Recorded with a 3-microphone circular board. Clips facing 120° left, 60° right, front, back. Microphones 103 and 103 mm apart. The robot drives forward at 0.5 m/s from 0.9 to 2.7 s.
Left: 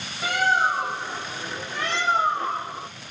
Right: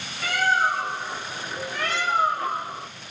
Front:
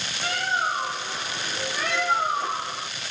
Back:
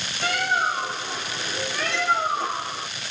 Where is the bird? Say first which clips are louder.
Left 1 dB, back 3 dB; 170° right, 1.4 m; by 2.9 s 175° right, 2.5 m.